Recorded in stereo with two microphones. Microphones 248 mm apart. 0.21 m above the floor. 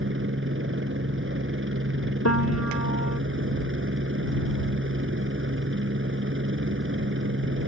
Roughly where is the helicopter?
Right.